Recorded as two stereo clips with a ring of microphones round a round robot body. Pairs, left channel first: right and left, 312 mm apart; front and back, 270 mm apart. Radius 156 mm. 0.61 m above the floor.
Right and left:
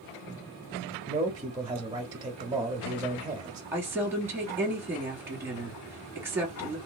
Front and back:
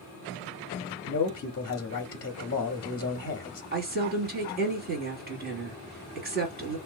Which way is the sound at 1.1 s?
25° left.